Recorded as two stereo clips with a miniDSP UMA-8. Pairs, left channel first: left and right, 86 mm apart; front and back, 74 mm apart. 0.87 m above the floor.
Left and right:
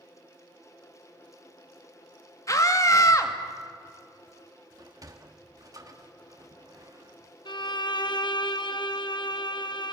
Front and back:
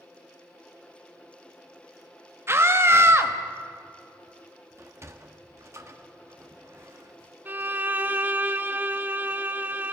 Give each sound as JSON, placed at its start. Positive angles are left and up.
{"t": 2.5, "sound": "a scream", "azimuth_deg": 135, "distance_m": 1.5}
{"t": 4.8, "sound": "a sliding door", "azimuth_deg": -135, "distance_m": 1.3}
{"t": 7.5, "sound": "a violin", "azimuth_deg": 115, "distance_m": 0.8}